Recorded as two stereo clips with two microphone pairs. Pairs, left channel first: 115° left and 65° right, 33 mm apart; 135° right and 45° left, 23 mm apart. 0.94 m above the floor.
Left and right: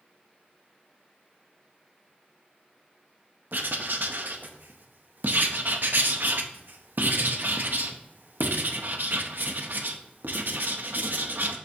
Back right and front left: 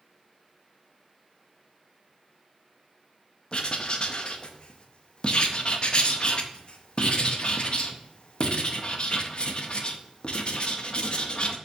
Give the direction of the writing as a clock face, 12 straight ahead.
3 o'clock.